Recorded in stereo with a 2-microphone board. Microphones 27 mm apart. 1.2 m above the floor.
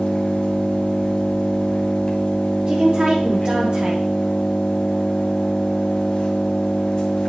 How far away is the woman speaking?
About 1.2 m.